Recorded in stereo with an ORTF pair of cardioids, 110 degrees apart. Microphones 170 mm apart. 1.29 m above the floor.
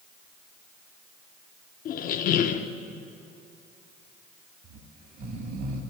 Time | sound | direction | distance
1.9 | a squeak | 60° left | 0.6 m
4.6 | snoring | 65° right | 1.6 m